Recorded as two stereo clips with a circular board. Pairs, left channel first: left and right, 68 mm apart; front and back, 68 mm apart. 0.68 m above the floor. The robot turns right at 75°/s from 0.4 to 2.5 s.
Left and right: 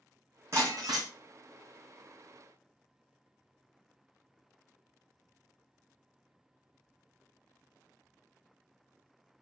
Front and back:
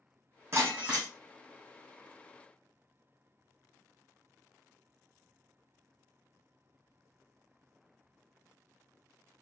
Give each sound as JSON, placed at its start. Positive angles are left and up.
{"t": 0.5, "sound": "breaking glass", "azimuth_deg": -135, "distance_m": 1.6}